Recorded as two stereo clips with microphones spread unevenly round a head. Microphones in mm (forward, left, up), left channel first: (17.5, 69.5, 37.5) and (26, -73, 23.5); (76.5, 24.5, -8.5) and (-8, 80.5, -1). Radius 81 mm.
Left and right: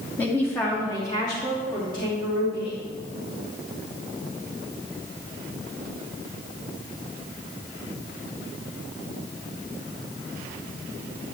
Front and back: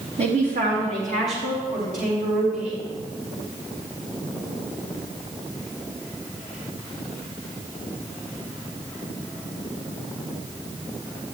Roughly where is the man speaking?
Behind.